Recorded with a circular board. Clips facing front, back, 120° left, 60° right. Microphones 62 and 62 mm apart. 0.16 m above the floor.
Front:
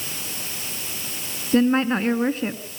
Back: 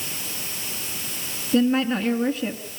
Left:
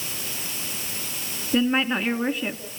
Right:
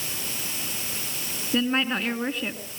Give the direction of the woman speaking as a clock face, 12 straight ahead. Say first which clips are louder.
Front 2 dB, left 3 dB; 11 o'clock.